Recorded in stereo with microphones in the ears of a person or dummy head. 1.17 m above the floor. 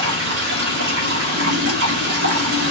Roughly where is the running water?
Right.